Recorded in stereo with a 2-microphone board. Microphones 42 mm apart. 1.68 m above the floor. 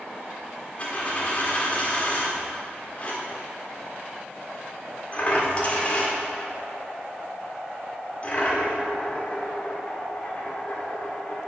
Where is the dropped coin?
35° left (ahead or behind), 1.5 m.